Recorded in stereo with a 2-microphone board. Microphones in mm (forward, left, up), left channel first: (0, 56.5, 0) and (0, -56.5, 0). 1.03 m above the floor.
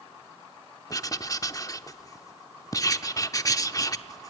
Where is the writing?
30° left (ahead or behind), 0.7 m.